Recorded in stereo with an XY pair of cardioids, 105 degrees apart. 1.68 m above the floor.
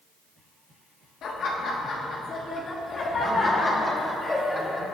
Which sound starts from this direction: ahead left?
Laughter, at 1.2 s.